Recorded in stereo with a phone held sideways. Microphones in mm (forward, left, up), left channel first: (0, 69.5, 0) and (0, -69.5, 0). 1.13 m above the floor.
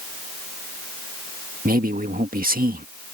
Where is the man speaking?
75° right (ahead or behind).